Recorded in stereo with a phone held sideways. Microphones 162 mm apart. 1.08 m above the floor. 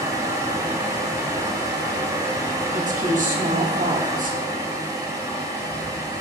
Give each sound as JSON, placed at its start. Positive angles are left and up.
{"t": 0.0, "sound": "a fan", "side_deg": -20, "distance_m": 0.8}
{"t": 2.7, "sound": "a woman speaking", "side_deg": -55, "distance_m": 0.7}